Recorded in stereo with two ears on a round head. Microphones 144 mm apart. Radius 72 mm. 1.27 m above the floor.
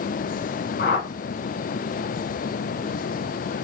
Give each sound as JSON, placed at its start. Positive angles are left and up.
{"t": 0.8, "sound": "a whoosh", "side_deg": 50, "distance_m": 1.2}